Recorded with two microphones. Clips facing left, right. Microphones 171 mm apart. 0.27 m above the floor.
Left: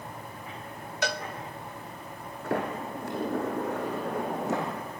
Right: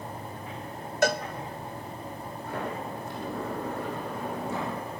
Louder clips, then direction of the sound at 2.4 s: Left 4 dB; 80° left.